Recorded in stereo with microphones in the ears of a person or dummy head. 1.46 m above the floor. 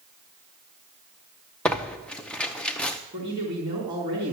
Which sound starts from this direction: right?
A man speaking, at 3.1 s.